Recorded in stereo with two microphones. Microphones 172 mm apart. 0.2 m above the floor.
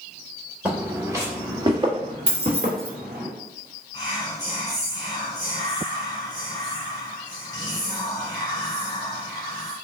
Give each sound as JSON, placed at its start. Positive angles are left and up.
{"t": 0.7, "sound": "footsteps", "side_deg": -10, "distance_m": 1.7}
{"t": 2.3, "sound": "keys jangling", "side_deg": -35, "distance_m": 0.9}
{"t": 3.9, "sound": "whispering", "side_deg": 25, "distance_m": 1.5}